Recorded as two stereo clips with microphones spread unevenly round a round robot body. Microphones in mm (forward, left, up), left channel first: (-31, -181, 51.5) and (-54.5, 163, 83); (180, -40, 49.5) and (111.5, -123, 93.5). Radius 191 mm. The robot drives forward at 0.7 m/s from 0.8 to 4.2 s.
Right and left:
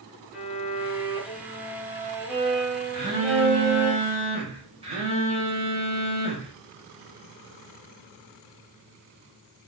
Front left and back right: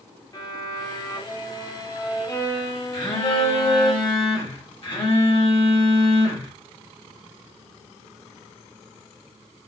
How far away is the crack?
I don't hear a crack.